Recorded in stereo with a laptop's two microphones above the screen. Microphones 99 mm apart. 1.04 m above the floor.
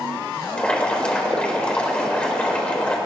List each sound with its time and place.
0.6 s boiling: 10° left (ahead or behind), 3.5 m